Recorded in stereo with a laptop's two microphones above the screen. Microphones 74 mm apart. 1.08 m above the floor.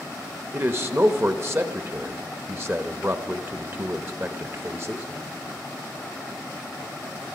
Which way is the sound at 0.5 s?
35° right (ahead or behind).